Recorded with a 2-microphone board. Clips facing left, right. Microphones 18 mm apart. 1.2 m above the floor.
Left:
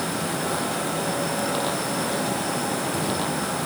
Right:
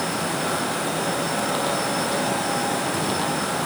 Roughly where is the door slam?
I don't hear a door slam.